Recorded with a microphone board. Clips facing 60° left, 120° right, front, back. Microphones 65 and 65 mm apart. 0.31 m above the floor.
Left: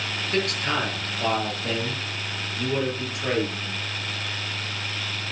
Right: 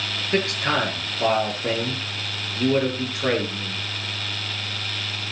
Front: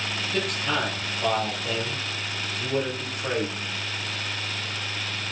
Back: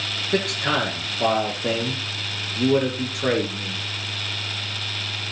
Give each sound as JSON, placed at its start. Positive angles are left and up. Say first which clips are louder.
{"t": 0.3, "sound": "a man speaking", "louder": "right 3 dB, back 5 dB", "azimuth_deg": 175, "distance_m": 7.0}